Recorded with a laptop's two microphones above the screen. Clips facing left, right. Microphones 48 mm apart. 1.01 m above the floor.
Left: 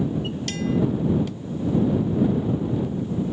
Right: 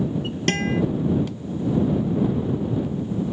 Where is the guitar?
50° right (ahead or behind).